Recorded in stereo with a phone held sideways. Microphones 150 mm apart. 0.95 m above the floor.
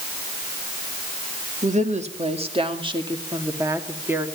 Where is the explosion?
No explosion in this recording.